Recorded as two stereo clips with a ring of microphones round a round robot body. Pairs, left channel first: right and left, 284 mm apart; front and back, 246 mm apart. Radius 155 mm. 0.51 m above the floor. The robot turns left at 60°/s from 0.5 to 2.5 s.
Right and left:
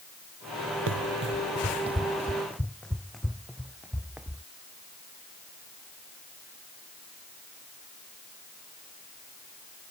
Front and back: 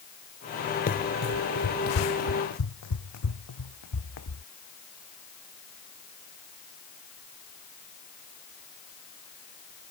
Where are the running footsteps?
50° left; by 4.4 s 5° left.